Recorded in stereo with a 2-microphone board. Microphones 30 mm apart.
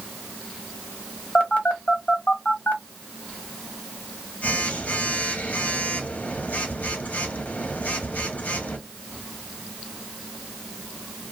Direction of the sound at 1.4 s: 60° left (ahead or behind).